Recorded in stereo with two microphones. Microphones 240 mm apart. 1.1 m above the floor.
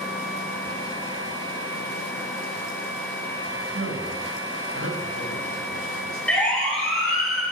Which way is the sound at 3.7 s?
65° right (ahead or behind).